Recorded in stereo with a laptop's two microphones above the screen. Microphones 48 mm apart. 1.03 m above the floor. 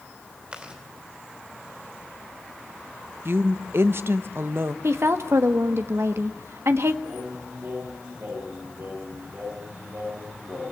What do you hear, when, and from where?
0.5 s chewing: 20° right (ahead or behind), 2.5 m
3.2 s a woman speaking: 60° right (ahead or behind), 0.9 m
4.8 s a woman speaking: 70° right (ahead or behind), 1.3 m
7.0 s singing: 55° right (ahead or behind), 8.5 m